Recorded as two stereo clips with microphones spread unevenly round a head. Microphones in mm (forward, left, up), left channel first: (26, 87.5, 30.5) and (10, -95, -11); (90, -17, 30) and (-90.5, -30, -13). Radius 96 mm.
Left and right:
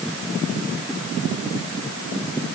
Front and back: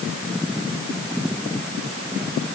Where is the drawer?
I don't hear a drawer.